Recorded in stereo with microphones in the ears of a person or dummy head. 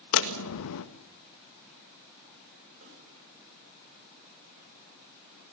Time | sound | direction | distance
0.1 | a door slam | 55° left (ahead or behind) | 1.6 m
2.8 | a snare drum | 40° right (ahead or behind) | 7.5 m